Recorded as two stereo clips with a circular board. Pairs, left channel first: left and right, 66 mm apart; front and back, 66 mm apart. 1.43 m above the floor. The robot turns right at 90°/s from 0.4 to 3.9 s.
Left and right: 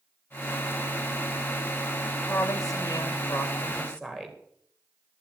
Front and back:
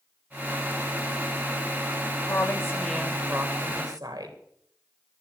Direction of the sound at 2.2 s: 20° left.